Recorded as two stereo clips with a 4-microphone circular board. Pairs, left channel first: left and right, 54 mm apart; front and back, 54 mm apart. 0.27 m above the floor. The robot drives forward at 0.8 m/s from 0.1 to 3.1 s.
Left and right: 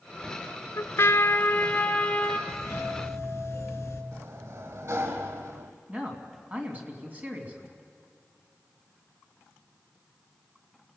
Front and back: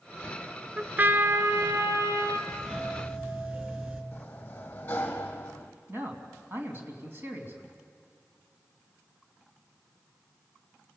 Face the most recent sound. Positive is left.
turn(degrees=-145)